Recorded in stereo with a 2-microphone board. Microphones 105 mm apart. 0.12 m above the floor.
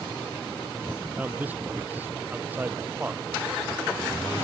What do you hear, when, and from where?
1.2 s a man speaking: 20° right (ahead or behind)